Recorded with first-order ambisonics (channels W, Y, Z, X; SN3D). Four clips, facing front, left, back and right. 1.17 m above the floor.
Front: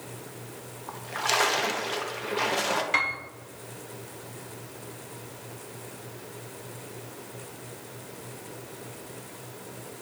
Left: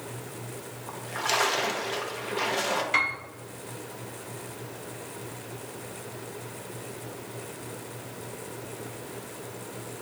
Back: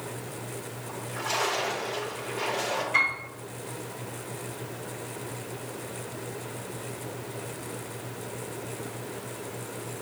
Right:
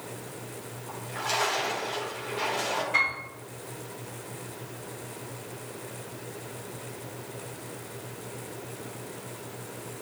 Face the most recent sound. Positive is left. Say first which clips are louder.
# right 1 dB, back 3 dB
turn(degrees=35)